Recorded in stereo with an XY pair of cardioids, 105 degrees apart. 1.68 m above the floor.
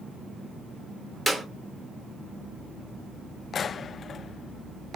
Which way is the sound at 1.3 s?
10° right.